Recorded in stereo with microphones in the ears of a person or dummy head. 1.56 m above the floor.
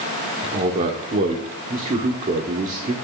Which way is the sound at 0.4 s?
35° right (ahead or behind).